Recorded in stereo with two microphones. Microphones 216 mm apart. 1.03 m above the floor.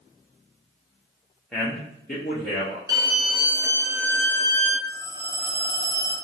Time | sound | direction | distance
1.5 | a man speaking | 5° left (ahead or behind) | 0.6 m
2.9 | a violin | 15° right (ahead or behind) | 0.8 m
4.9 | a phone ringing | 50° right (ahead or behind) | 1.8 m